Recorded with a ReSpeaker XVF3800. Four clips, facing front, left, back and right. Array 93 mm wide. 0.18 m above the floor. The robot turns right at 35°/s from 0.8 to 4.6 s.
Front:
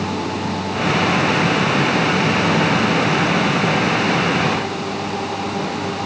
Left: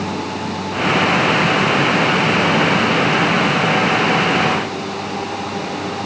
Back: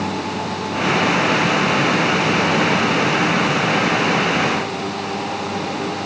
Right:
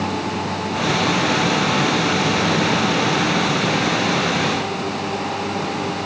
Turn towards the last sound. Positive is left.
No sound to turn to.